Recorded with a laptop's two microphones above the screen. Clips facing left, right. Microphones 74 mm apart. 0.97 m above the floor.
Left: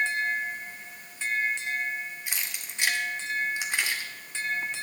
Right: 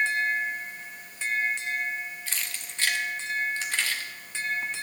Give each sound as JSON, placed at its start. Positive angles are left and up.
{"t": 2.3, "sound": "keys jangling", "side_deg": 15, "distance_m": 1.6}